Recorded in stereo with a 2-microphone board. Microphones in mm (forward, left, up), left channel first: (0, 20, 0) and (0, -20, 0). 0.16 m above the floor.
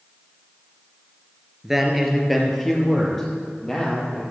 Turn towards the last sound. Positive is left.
turn(degrees=15)  # may be behind; listen again after turning